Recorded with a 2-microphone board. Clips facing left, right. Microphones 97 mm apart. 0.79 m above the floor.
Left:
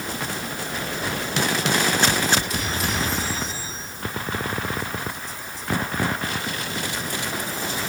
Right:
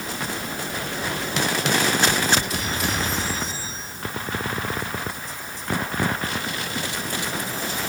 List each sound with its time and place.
Only background noise.